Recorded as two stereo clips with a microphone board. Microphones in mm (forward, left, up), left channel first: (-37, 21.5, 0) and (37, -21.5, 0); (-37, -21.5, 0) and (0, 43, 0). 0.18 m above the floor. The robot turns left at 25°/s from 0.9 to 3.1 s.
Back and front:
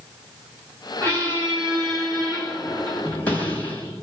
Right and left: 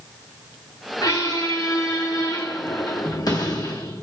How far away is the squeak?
About 2.5 m.